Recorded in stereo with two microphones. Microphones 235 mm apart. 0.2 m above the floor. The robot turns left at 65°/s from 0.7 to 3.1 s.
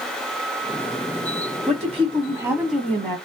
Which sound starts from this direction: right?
A woman speaking, at 1.7 s.